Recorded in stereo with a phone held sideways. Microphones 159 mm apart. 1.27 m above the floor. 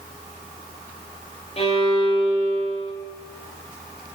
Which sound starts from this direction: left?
A violin, at 1.6 s.